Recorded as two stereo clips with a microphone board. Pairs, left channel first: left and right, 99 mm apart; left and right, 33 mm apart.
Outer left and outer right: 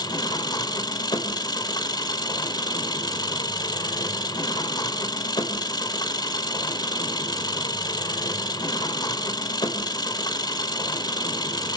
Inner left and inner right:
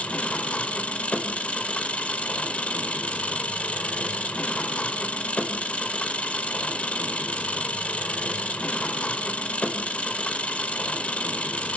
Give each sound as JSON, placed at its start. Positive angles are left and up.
{"t": 0.0, "sound": "an engine running", "side_deg": 40, "distance_m": 1.7}